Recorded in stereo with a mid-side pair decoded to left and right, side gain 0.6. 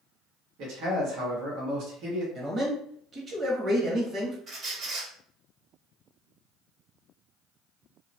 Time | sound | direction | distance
0.6 | a man speaking | 65° right | 1.3 m
2.4 | a man speaking | 35° right | 1.4 m
4.5 | a squeak | 40° right | 1.4 m